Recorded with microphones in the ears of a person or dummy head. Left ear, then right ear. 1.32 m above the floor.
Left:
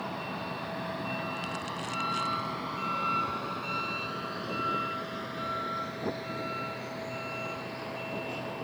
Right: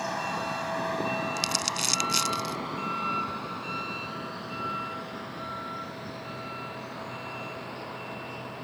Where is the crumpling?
85° right.